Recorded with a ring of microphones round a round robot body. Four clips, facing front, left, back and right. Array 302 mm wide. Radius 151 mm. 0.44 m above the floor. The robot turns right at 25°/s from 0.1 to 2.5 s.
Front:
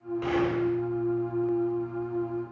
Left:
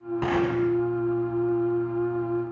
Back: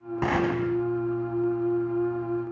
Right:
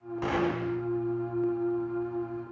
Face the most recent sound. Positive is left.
turn(degrees=-150)